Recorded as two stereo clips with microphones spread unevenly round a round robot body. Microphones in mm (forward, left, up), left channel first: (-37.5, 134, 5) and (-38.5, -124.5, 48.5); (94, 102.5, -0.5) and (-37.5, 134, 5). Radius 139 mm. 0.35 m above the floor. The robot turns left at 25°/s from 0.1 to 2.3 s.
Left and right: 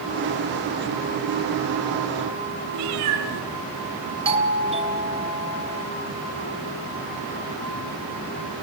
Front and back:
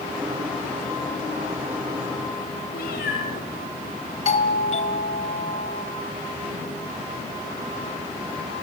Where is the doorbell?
20° right, 3 m.